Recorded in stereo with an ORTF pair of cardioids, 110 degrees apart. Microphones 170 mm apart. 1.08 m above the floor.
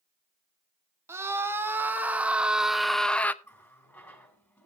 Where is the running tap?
10° left, 6 m.